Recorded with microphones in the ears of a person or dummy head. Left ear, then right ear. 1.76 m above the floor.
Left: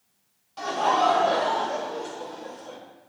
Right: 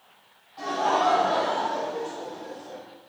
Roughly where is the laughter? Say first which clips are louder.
Left 1 dB; left.